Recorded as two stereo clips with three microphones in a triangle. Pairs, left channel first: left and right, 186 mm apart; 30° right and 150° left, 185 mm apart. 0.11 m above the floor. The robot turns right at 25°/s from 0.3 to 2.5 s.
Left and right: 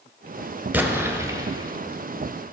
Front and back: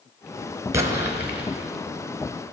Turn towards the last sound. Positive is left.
turn(degrees=-115)